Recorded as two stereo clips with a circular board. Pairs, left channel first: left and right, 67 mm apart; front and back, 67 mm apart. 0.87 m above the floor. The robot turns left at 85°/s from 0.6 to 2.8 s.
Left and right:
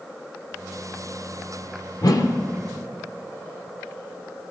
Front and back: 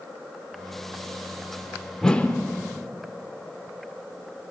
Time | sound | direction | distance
2.0 | a whoosh | 85° left | 0.9 m